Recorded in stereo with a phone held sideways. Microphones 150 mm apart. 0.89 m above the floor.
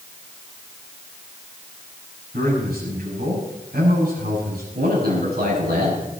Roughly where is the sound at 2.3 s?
Right.